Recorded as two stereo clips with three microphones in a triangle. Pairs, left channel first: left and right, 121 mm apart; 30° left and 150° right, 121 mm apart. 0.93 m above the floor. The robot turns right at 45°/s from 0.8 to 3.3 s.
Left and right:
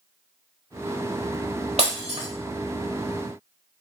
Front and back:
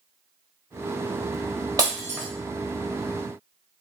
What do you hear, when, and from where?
1.8 s breaking glass: 95° right, 1.2 m; by 2.3 s 75° right, 1.2 m